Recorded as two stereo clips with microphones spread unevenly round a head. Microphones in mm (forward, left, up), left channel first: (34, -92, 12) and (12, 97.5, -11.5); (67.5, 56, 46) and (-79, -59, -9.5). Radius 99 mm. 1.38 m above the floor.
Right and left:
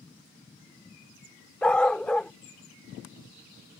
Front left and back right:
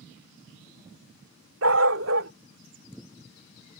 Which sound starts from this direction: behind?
A dog barking, at 1.6 s.